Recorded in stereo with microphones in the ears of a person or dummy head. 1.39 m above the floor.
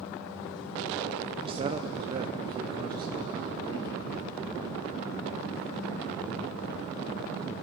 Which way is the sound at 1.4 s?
30° right (ahead or behind).